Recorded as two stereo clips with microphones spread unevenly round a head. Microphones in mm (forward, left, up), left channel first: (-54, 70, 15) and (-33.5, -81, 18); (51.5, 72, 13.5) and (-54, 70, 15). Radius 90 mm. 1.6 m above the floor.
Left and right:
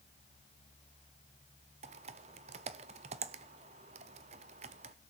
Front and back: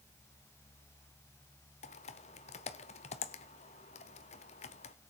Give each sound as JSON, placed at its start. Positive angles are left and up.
{"t": 1.8, "sound": "typing on a keyboard", "azimuth_deg": -30, "distance_m": 0.7}